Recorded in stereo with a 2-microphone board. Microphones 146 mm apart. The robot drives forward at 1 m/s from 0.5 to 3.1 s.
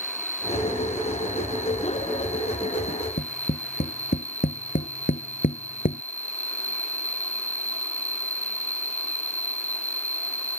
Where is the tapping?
65° left (ahead or behind).